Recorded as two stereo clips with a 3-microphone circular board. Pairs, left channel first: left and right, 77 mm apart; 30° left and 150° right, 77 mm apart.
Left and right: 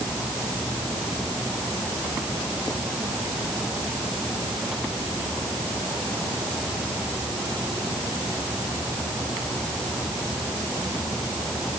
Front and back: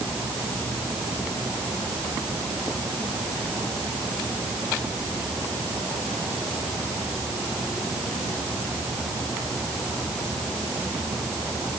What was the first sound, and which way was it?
Only background noise.